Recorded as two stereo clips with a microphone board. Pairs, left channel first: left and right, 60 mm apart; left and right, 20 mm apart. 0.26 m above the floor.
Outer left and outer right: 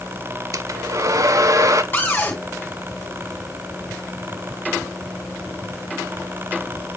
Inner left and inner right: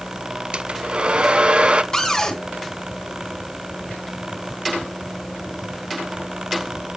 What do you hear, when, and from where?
0.5 s a hair dryer: 65° right (ahead or behind), 0.5 m
1.9 s a cupboard door: 35° left (ahead or behind), 2 m